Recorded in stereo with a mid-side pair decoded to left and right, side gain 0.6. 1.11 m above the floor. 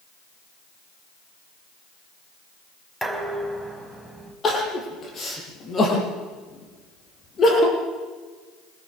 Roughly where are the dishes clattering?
Ahead.